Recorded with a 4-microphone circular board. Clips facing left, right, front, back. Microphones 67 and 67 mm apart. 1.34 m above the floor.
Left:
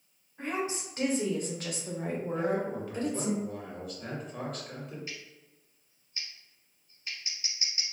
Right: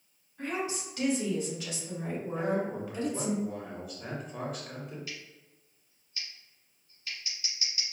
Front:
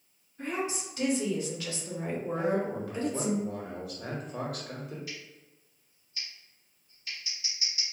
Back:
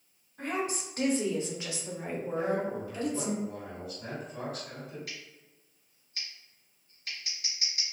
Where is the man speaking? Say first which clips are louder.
Right 1 dB, front 1 dB; 5° right, 1.1 m.